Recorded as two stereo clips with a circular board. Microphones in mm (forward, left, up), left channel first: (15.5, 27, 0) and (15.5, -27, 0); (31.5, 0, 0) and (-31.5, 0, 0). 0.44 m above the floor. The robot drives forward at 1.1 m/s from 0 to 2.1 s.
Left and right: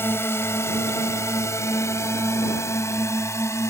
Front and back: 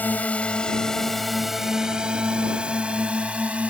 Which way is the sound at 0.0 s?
55° left.